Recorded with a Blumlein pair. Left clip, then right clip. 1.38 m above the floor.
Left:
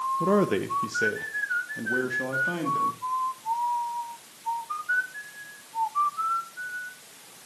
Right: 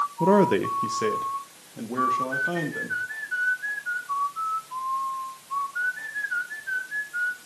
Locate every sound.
0.2 s a man speaking: 15° right, 0.6 m; by 3.0 s straight ahead, 3 m